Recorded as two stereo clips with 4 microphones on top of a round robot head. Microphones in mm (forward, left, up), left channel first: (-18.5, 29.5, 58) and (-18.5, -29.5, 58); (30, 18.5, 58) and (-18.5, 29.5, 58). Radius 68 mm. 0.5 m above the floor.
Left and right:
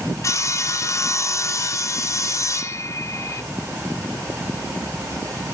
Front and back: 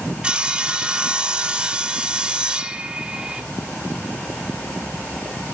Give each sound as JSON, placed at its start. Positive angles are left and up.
{"t": 0.2, "sound": "sawing", "azimuth_deg": 100, "distance_m": 0.5}